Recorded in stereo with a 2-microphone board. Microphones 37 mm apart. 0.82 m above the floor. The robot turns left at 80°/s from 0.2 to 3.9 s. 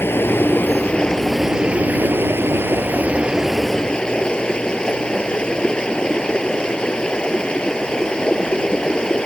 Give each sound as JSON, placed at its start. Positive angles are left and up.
{"t": 0.0, "sound": "running water", "azimuth_deg": 95}